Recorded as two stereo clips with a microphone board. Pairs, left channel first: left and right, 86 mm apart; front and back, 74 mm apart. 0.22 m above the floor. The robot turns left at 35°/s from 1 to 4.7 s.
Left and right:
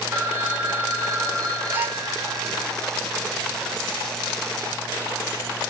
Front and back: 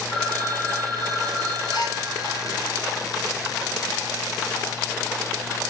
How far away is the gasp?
About 0.7 m.